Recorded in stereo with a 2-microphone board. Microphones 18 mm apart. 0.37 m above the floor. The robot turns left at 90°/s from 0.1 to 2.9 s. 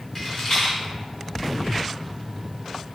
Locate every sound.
0.1 s a rattle: 5° left (ahead or behind), 1.9 m; by 0.7 s 45° left (ahead or behind), 1.9 m